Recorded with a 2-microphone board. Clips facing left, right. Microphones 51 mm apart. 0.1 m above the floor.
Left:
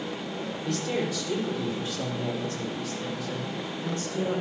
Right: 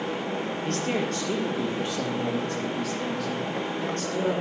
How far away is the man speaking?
About 2.5 m.